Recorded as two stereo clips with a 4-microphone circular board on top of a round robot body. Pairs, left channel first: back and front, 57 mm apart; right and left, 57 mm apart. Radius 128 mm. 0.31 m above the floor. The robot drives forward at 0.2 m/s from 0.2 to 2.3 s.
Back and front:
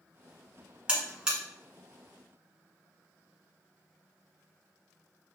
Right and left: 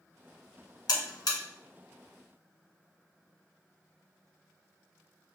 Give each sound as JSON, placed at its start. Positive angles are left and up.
{"t": 0.9, "sound": "a buzzer", "azimuth_deg": -75, "distance_m": 1.1}